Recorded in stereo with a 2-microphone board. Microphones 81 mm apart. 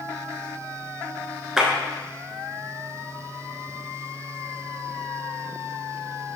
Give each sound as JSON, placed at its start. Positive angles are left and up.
{"t": 1.6, "sound": "a clap", "side_deg": -10, "distance_m": 0.9}